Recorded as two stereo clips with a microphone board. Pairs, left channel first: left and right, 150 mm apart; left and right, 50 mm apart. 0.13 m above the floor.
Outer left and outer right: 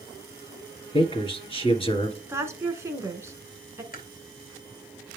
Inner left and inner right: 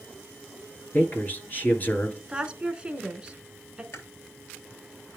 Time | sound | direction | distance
0.9 | a man speaking | 35° left (ahead or behind) | 2.0 m
2.3 | a woman speaking | 20° right (ahead or behind) | 1.1 m
3.9 | chewing | 65° left (ahead or behind) | 1.2 m